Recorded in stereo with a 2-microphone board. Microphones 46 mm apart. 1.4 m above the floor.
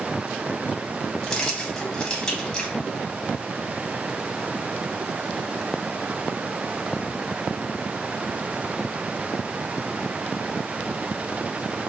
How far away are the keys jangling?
About 0.9 m.